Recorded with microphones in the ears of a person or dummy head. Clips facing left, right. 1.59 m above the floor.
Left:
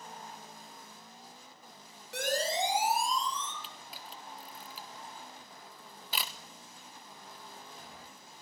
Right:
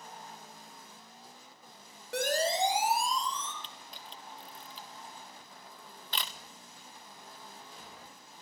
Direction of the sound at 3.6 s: 15° left (ahead or behind).